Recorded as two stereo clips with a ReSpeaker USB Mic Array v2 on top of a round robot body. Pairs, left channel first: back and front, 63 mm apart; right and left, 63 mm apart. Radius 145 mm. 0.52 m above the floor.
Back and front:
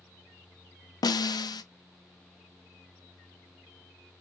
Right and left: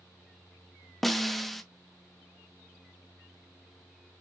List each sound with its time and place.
1.0 s a snare drum: 175° right, 0.6 m